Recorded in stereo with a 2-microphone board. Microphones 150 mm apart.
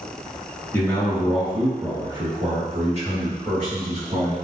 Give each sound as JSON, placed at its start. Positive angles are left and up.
{"t": 0.7, "sound": "a man speaking", "side_deg": 20, "distance_m": 1.0}